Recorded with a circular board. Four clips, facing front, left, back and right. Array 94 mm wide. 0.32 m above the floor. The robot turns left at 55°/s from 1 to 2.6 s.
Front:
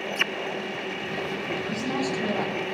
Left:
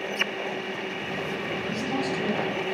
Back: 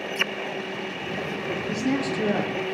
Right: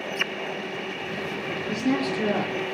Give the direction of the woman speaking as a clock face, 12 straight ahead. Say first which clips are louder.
Right 5 dB, back 4 dB; 4 o'clock.